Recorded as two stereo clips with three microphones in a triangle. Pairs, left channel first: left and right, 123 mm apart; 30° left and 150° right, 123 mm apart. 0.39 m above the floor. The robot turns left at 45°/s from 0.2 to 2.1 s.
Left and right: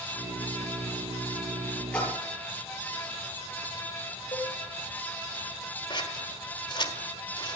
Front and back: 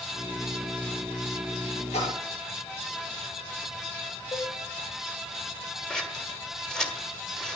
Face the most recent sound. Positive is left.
turn(degrees=115)